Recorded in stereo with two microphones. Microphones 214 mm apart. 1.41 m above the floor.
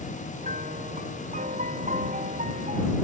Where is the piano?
40° right (ahead or behind).